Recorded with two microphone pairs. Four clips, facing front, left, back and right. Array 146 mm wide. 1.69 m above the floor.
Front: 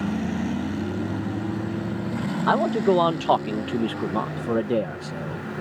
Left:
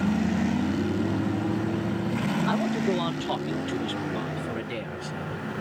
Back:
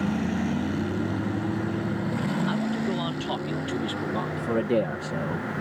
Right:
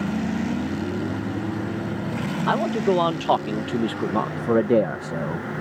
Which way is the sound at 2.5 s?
30° right.